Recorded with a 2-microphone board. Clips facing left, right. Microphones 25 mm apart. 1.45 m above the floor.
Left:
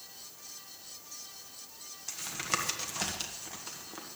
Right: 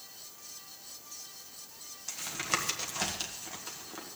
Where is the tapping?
Centre (ahead or behind), 1.7 m.